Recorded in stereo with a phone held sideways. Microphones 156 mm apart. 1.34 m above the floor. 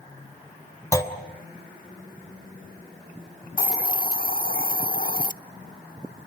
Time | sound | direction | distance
0.9 | a clunk | 20° left (ahead or behind) | 2.5 m
3.6 | a hiss | 55° left (ahead or behind) | 0.5 m